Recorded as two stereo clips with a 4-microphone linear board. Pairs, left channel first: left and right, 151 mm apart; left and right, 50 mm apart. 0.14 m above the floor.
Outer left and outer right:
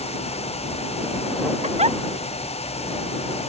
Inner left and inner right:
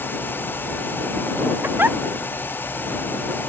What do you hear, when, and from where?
1.6 s a giggle: 45° right (ahead or behind)